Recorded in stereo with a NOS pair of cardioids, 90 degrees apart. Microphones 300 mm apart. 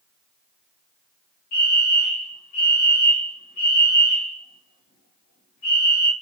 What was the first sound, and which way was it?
A fire alarm, 70° left.